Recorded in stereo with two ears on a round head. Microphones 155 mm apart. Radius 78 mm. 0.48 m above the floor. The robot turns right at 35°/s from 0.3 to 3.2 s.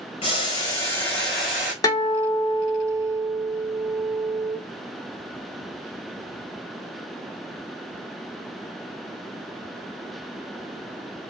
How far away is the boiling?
About 2 m.